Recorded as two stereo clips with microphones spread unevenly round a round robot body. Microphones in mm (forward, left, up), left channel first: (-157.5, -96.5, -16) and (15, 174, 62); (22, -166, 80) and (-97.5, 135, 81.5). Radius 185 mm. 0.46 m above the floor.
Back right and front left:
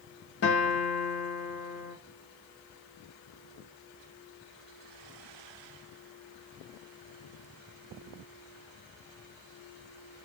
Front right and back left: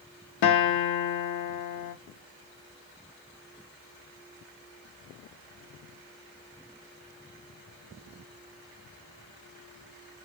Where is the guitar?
80° right, 0.6 m.